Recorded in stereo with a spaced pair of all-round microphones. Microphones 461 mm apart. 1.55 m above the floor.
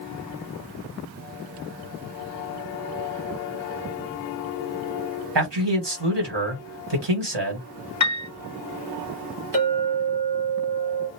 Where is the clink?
60° right (ahead or behind), 1.2 m.